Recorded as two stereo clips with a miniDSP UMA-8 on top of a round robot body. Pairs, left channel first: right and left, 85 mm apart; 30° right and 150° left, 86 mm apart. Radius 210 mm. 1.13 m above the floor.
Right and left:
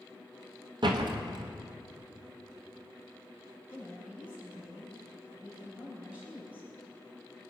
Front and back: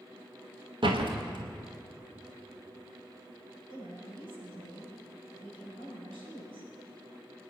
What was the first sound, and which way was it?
A door slam, 125° left.